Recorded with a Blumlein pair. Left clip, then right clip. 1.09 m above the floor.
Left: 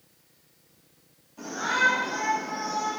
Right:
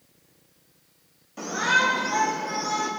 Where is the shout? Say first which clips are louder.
Right 3 dB; 40° right, 4.5 m.